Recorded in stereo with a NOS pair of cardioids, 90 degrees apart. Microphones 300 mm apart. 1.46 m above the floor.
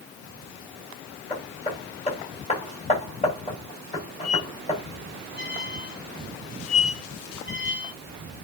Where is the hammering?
20° left, 5.5 m.